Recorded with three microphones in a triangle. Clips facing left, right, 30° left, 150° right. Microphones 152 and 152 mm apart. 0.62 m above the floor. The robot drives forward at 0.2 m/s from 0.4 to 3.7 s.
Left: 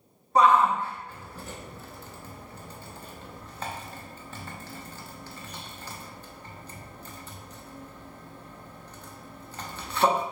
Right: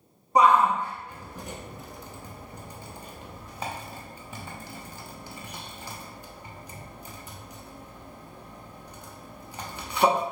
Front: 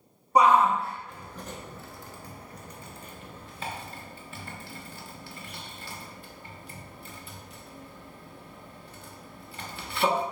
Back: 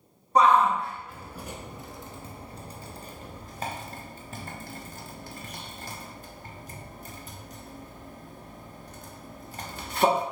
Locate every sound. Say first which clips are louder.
0.3 s a shout: right 1 dB, even; 35° right, 0.6 m; by 10.2 s 165° right, 0.7 m